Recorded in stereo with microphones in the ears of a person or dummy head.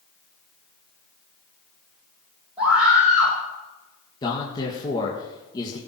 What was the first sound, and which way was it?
A scream, 20° right (ahead or behind).